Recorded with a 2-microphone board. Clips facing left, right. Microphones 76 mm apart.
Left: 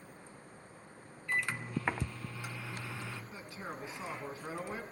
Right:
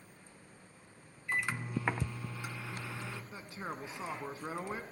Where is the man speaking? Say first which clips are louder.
Right 1 dB; 25° right (ahead or behind), 1.3 m.